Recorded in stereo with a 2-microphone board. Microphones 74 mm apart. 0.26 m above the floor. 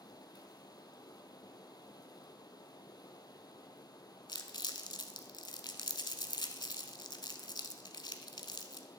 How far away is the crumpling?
About 0.6 m.